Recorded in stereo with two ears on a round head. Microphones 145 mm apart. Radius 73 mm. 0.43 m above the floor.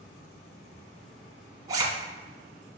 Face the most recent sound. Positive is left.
turn(degrees=-25)  # may be behind; listen again after turning